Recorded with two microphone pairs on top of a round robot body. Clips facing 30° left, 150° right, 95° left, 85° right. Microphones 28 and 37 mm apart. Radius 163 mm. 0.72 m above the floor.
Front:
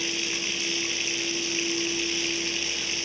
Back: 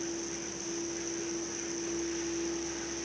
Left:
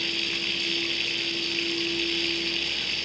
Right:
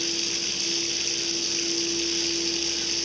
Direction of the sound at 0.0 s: 35° left.